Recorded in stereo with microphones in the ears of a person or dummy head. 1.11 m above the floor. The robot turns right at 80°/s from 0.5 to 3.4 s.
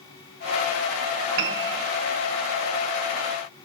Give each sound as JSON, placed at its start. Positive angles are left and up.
{"t": 1.4, "sound": "a piano", "azimuth_deg": -105, "distance_m": 1.2}